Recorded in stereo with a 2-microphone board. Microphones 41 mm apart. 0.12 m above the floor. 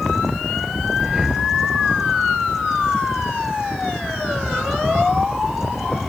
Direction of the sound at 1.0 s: 10° right (ahead or behind).